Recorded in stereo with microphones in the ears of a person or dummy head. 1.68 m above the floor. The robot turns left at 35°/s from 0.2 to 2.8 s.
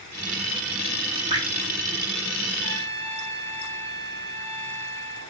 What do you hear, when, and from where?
1.3 s dripping: 25° right (ahead or behind), 2 m; by 1.4 s 30° right (ahead or behind), 2 m
2.6 s a trumpet: 60° right (ahead or behind), 2 m; by 5.3 s 65° right (ahead or behind), 2 m